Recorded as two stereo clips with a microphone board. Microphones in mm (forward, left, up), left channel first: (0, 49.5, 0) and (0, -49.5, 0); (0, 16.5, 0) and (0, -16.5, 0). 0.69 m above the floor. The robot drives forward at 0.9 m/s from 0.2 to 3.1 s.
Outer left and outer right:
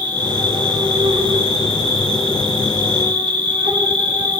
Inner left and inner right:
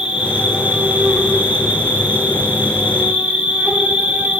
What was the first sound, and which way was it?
An insect, 50° right (ahead or behind).